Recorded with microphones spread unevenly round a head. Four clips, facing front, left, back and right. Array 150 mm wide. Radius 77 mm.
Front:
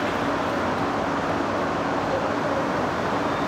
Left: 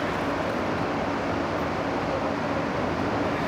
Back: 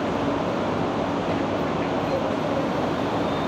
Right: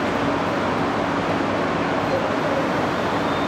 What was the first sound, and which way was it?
Only background noise.